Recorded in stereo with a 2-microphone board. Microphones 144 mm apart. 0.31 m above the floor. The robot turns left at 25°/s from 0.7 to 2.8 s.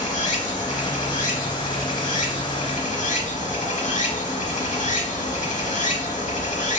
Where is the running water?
120° left, 0.8 m; by 6.8 s 65° left, 0.8 m.